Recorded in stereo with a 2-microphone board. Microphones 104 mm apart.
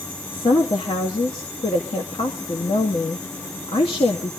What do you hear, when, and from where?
0.3 s a woman speaking: 65° left (ahead or behind), 2.0 m